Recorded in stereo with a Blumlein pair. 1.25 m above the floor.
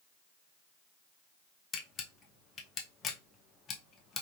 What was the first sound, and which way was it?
A camera shutter, 25° left.